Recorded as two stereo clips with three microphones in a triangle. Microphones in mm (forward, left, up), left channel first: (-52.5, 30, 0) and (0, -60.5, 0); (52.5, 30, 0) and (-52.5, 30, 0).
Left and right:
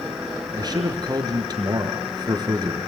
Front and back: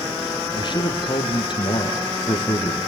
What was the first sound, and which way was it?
A man speaking, 20° right.